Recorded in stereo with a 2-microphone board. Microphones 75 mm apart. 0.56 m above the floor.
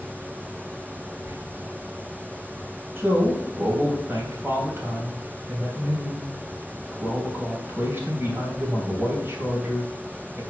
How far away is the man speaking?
About 3 m.